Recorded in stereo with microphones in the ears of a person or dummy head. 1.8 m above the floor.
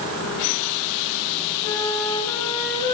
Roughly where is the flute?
Centre.